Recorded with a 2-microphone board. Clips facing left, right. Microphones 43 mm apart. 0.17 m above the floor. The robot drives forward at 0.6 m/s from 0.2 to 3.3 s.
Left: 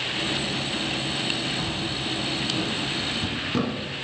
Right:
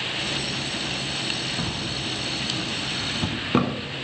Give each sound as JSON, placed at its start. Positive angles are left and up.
{"t": 1.6, "sound": "a drawer", "side_deg": -25, "distance_m": 1.5}